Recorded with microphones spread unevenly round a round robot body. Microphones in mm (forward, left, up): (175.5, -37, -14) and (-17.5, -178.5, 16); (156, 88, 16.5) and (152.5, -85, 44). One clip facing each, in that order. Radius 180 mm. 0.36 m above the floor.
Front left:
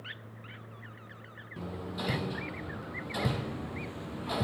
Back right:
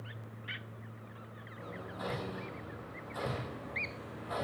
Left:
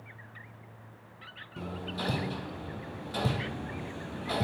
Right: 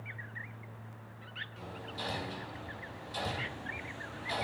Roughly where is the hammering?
Left.